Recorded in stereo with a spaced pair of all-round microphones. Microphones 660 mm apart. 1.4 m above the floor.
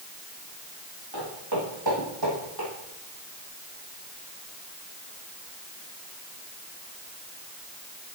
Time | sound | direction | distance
1.1 | footsteps | 35° right (ahead or behind) | 5 m